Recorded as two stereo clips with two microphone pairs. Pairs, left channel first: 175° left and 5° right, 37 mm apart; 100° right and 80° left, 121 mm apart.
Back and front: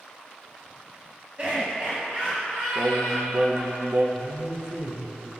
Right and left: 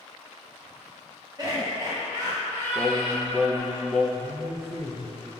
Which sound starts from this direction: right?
A man speaking, at 4.1 s.